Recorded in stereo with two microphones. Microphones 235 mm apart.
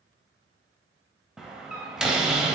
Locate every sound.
1.4 s a door slam: 5° right (ahead or behind), 0.6 m